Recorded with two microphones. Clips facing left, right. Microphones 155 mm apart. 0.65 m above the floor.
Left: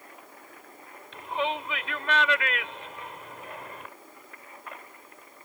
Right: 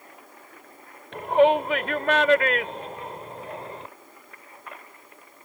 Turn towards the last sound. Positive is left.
turn(degrees=-30)  # may be behind; listen again after turning